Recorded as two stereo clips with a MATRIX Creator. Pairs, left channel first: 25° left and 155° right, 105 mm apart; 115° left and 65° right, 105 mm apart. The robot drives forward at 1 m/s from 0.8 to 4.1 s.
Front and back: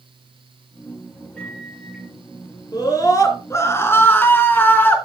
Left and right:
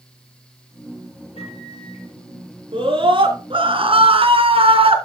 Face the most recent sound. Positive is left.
turn(degrees=-45)